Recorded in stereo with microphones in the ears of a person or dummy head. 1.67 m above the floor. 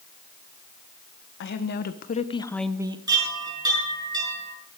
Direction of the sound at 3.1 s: 15° right (ahead or behind).